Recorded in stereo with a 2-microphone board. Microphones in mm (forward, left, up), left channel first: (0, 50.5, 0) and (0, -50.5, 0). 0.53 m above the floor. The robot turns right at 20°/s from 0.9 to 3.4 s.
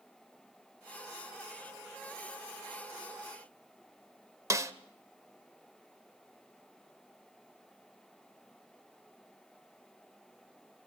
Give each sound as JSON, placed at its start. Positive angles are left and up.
{"t": 4.5, "sound": "a snare drum", "side_deg": -30, "distance_m": 0.8}